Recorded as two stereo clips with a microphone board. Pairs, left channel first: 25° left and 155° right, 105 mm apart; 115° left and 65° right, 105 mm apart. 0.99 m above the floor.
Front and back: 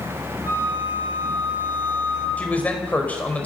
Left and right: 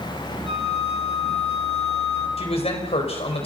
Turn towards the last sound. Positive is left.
turn(degrees=100)